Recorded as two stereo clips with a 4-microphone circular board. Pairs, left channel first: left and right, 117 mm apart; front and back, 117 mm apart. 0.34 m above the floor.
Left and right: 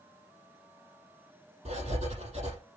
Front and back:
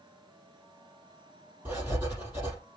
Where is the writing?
105° right, 5 m.